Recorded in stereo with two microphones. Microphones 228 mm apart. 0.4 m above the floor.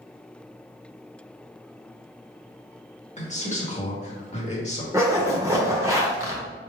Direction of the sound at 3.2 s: 30° left (ahead or behind).